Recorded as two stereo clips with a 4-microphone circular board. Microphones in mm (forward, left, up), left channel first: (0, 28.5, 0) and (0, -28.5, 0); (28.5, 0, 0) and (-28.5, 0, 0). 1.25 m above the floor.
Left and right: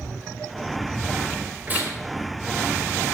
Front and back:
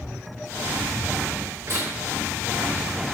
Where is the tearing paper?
150° right, 5.5 m.